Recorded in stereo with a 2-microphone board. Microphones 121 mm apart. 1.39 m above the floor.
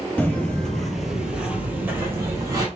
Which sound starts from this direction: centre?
Footsteps, at 0.2 s.